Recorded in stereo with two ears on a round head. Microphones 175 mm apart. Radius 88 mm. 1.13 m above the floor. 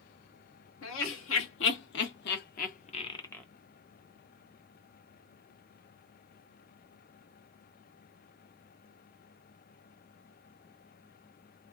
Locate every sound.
0.8 s laughter: 80° left, 2 m; by 3.5 s 5° left (ahead or behind), 0.8 m